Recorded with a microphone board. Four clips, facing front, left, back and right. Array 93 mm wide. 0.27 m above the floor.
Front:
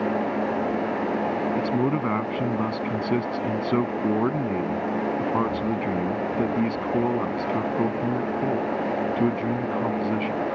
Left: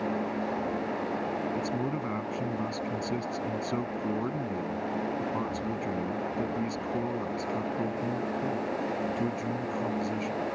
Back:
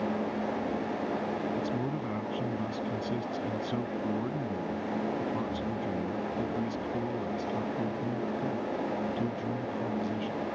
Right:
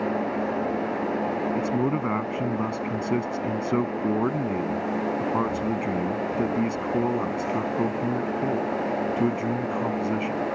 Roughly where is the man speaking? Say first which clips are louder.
Right 6 dB, front 9 dB; ahead right.